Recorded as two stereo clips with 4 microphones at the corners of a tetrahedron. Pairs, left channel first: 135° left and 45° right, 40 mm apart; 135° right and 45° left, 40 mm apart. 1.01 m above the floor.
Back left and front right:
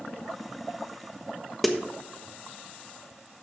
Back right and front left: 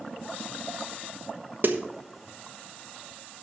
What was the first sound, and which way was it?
A snare drum, 50° left.